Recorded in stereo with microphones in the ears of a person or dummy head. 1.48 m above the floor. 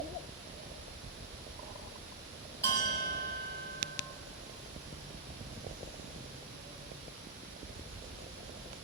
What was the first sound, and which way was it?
A bell, 20° left (ahead or behind).